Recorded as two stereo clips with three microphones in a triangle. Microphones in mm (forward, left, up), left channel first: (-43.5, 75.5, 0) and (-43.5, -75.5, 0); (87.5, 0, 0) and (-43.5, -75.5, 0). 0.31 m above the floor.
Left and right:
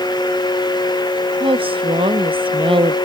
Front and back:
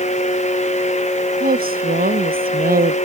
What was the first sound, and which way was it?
A woman speaking, 145° right.